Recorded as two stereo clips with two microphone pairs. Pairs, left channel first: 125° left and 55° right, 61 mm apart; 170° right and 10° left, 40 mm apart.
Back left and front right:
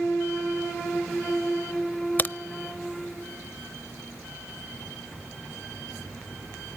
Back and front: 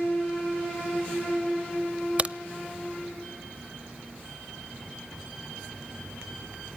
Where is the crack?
65° left, 0.6 m.